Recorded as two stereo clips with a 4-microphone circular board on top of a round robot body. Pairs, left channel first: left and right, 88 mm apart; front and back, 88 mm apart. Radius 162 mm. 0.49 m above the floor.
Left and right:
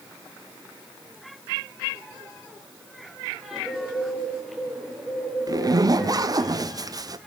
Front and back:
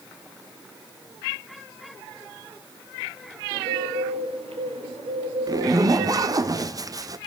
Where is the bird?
Straight behind, 3.5 m.